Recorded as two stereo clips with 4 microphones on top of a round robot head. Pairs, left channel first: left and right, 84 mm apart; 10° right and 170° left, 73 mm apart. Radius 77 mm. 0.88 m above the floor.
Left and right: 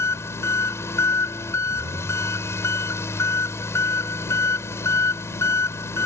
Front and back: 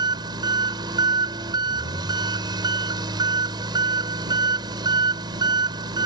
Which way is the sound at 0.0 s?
150° left.